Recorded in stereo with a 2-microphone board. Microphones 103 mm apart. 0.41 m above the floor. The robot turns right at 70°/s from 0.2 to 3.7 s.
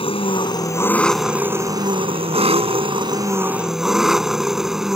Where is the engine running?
110° left; by 5.0 s 5° right.